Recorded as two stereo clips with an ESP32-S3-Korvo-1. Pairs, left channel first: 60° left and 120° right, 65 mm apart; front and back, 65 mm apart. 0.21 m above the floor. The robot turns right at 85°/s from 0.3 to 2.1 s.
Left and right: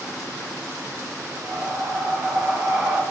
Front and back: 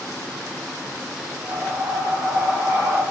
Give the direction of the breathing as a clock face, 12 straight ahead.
6 o'clock.